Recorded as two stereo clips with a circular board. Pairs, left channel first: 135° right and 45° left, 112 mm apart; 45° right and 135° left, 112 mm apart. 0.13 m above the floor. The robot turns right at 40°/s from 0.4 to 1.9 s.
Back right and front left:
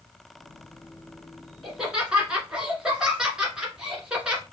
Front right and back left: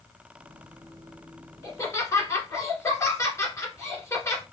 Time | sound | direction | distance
1.6 | laughter | 40° right | 1.4 m